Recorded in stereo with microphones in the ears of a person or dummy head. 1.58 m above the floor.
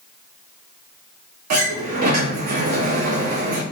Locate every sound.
1.5 s a sliding door: 45° right (ahead or behind), 0.6 m